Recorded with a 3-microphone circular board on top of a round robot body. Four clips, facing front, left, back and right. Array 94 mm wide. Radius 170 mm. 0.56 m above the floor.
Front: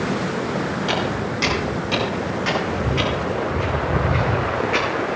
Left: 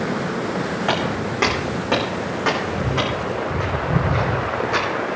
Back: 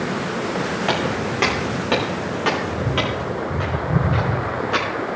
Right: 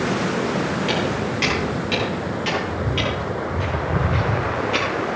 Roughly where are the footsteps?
Behind left.